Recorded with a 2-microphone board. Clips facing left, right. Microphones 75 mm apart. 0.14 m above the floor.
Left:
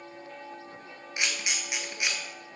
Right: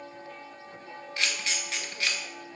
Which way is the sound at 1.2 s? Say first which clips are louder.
Even; 15° left (ahead or behind).